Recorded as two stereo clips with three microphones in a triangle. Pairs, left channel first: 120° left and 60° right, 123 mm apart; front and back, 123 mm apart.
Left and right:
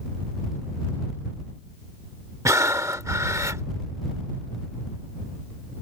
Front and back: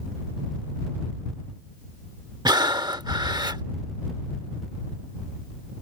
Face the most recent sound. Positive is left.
turn(degrees=-125)